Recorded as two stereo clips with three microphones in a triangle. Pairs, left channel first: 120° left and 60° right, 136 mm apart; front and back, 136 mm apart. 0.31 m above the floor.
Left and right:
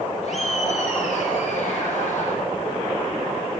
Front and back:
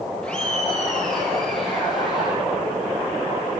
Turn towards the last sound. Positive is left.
turn(degrees=90)